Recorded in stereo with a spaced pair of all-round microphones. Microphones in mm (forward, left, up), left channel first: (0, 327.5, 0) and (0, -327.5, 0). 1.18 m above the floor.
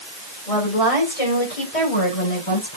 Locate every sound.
0.5 s a woman speaking: 60° left (ahead or behind), 5 m; by 2.8 s 45° left (ahead or behind), 4.5 m